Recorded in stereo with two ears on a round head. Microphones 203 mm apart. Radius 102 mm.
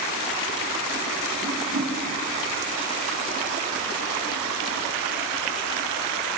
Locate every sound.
1.4 s a whoosh: 50° right (ahead or behind), 6.5 m